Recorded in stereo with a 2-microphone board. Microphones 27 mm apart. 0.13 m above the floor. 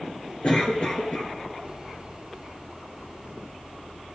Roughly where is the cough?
Left.